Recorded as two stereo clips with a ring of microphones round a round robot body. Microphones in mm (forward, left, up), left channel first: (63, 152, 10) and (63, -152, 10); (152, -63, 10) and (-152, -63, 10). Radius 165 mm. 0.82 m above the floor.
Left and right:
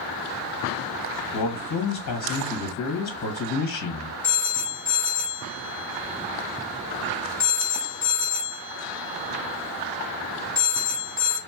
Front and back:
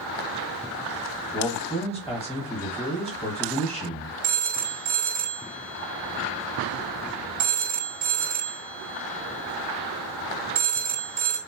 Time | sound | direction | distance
1.3 | a man speaking | 95° left | 1.1 m
4.2 | a phone ringing | 175° left | 1.2 m